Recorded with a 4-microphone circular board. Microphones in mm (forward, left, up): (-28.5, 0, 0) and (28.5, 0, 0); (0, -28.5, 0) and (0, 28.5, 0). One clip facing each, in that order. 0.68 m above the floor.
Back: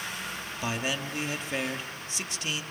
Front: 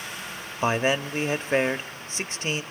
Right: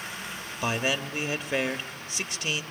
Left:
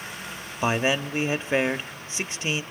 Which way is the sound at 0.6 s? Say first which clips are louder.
Front 9 dB, left 4 dB; 35° left.